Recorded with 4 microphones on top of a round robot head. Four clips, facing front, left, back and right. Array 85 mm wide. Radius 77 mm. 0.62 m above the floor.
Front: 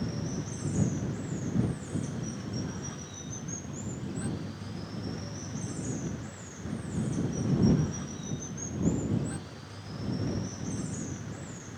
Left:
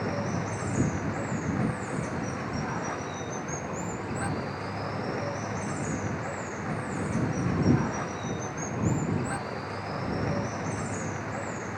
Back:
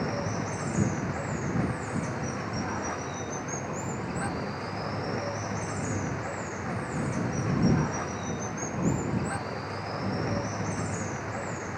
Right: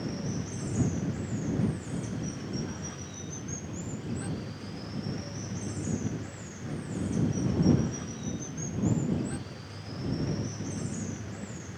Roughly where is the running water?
Behind left.